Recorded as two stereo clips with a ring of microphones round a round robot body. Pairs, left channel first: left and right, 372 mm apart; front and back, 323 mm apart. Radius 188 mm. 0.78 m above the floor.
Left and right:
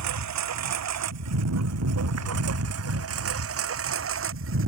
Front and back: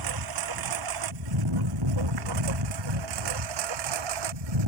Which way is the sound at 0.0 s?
140° right.